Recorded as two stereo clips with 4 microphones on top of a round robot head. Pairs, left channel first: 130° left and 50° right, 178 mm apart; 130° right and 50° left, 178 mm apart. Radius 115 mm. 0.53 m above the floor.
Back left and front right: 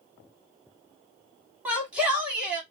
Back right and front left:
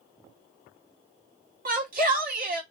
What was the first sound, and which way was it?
A shout, 30° left.